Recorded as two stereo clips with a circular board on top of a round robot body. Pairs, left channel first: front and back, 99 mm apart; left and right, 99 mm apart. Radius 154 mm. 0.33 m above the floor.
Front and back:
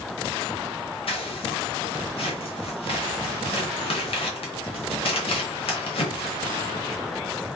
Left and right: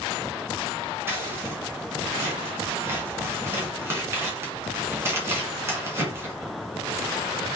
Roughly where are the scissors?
Ahead right.